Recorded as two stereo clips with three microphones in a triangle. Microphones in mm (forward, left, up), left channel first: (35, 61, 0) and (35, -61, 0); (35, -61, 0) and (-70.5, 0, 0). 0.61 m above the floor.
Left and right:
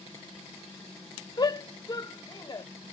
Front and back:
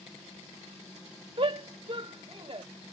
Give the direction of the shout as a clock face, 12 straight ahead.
8 o'clock.